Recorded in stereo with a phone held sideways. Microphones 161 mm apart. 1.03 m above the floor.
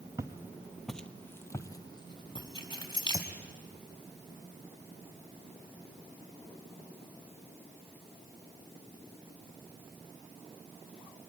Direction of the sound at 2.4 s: 30° left (ahead or behind).